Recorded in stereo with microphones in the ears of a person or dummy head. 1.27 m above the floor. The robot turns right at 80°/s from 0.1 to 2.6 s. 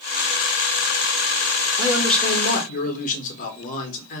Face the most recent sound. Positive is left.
turn(degrees=45)